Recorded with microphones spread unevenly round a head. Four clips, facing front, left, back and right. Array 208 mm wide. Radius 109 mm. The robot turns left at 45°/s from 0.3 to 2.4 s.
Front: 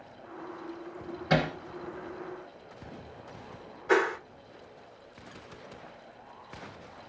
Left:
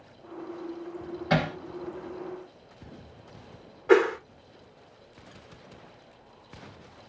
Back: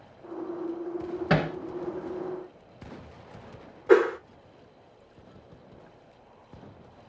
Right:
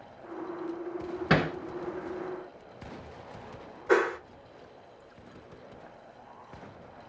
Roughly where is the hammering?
Behind right.